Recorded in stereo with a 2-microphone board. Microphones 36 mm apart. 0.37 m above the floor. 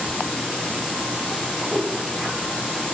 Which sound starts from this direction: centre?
A whoosh, at 1.7 s.